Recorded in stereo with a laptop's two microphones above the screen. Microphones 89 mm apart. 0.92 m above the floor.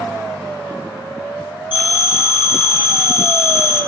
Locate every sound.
1.7 s a phone ringing: 65° left (ahead or behind), 1.6 m